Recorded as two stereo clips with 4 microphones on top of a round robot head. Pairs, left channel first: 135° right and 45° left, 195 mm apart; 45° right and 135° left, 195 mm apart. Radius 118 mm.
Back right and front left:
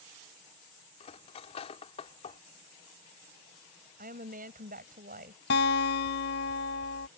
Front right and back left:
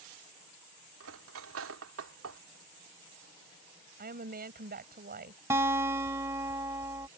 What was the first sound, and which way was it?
Cutlery clinking, 160° left.